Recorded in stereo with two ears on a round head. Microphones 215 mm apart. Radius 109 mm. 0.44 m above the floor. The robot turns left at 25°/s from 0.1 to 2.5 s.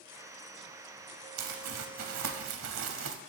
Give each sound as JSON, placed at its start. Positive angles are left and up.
{"t": 1.4, "sound": "crumpling", "side_deg": -90, "distance_m": 0.7}